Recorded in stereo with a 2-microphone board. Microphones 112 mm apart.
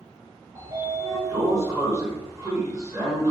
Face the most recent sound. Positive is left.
turn(degrees=-25)  # may be behind; listen again after turning